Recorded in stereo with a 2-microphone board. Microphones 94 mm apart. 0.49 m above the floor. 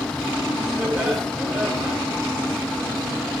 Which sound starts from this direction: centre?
Laughter, at 0.8 s.